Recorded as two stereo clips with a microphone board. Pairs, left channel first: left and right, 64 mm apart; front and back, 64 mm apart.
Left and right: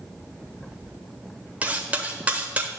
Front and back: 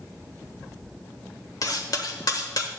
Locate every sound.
1.6 s cutlery clinking: 25° right, 0.9 m